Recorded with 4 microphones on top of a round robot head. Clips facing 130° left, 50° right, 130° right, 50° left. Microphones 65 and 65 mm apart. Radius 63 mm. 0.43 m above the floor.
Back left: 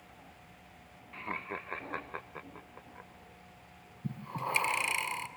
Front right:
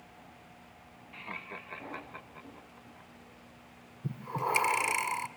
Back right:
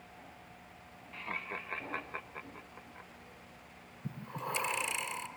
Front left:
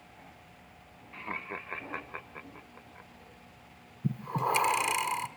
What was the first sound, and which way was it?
Laughter, 90° left.